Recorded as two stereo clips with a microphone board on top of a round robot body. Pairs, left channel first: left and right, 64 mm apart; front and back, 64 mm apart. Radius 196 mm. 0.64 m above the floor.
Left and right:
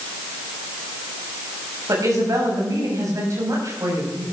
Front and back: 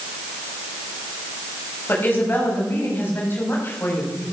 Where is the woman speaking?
60° right, 6 m.